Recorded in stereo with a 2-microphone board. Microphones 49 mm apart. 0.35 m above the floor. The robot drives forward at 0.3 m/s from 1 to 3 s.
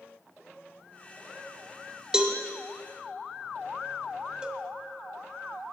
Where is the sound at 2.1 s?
15° right (ahead or behind), 0.7 m.